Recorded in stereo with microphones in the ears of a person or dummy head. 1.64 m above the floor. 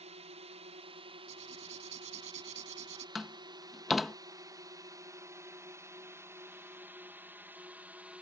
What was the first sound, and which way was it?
A drone, 40° right (ahead or behind).